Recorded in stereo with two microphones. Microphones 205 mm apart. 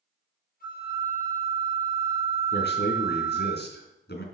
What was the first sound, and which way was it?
A flute, 45° left (ahead or behind).